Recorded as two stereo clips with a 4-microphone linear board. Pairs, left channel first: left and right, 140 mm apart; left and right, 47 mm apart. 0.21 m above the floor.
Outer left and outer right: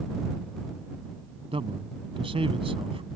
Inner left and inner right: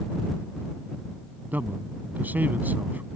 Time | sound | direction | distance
1.5 | a man speaking | 40° right (ahead or behind) | ?